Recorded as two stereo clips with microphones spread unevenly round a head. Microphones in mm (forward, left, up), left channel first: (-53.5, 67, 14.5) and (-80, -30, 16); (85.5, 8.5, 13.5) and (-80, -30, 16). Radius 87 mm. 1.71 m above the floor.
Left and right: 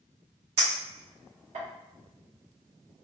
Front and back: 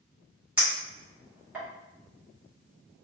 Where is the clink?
85° right, 1.3 m.